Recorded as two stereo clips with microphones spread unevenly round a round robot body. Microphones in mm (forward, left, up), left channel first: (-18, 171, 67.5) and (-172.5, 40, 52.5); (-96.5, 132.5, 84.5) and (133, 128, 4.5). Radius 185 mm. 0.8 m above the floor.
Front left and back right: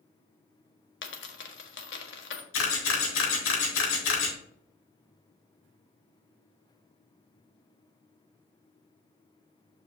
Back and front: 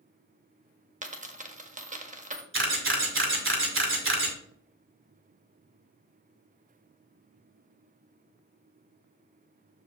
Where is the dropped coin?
65° left, 1.4 m.